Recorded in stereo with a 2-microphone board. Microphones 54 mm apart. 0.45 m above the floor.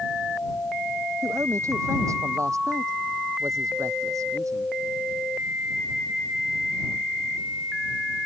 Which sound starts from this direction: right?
A man speaking, at 1.2 s.